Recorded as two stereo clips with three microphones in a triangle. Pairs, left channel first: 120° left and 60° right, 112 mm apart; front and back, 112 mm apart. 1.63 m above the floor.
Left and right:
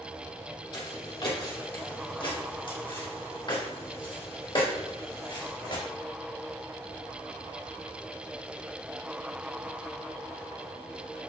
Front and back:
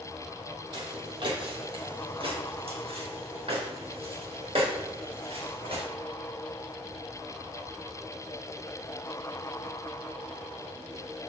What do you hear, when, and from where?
0.7 s footsteps: 155° left, 3 m; by 5.8 s 160° left, 5.5 m